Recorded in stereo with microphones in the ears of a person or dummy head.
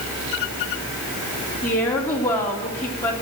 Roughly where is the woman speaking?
Centre.